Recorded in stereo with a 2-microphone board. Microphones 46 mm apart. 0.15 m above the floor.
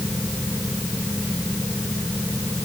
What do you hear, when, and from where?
Only background noise.